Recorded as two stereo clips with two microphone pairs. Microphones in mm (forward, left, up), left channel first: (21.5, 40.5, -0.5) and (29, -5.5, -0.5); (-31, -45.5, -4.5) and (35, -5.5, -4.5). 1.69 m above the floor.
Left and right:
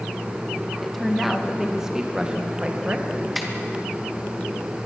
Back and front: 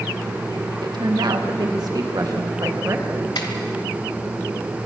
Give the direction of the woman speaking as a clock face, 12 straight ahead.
12 o'clock.